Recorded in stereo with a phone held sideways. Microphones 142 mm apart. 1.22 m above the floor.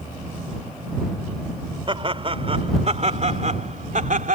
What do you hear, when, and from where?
1.9 s laughter: 40° right (ahead or behind); by 4.4 s 70° right (ahead or behind)